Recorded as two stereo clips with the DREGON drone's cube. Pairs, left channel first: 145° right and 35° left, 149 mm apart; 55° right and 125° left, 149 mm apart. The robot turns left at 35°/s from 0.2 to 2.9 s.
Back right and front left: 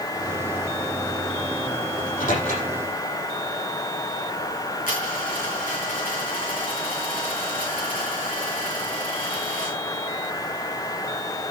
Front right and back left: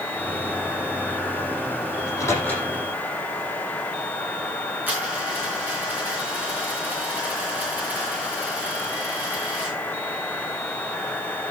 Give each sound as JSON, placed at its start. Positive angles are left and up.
{"t": 2.0, "sound": "a microwave", "azimuth_deg": -115, "distance_m": 7.5}
{"t": 4.9, "sound": "a dropped coin", "azimuth_deg": -160, "distance_m": 5.5}